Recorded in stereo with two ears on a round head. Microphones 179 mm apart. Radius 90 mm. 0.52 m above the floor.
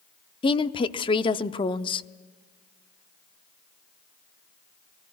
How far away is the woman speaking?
About 0.7 m.